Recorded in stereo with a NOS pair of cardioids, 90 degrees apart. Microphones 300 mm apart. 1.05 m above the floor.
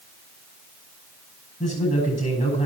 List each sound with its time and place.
1.6 s a man speaking: 15° left, 8.5 m